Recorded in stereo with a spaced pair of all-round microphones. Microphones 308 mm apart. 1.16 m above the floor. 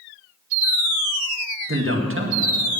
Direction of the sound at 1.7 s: 40° right (ahead or behind).